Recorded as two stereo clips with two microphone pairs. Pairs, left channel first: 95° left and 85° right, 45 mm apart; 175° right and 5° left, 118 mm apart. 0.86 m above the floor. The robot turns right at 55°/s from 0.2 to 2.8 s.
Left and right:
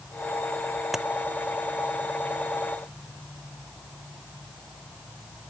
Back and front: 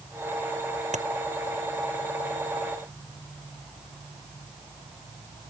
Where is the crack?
Straight ahead; by 1.1 s 5° left.